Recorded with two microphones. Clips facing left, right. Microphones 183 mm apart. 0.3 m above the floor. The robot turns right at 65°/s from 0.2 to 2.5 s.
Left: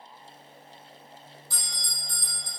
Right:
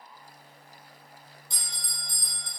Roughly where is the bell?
Ahead.